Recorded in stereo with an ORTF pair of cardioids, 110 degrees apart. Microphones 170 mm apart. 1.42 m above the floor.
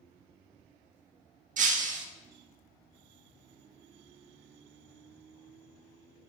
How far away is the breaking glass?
About 1.5 m.